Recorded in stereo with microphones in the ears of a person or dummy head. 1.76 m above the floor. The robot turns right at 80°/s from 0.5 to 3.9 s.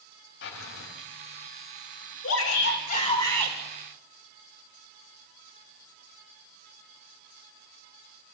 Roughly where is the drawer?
Left.